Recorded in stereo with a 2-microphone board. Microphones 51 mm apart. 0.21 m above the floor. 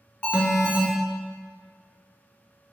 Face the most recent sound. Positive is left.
turn(degrees=25)  # may be behind; listen again after turning